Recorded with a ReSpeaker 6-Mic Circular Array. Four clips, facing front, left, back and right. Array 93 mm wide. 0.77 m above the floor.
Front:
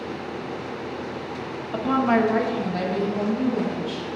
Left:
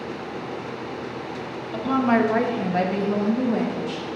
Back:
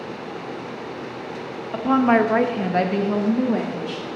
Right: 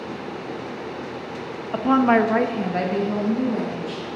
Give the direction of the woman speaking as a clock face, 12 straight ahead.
3 o'clock.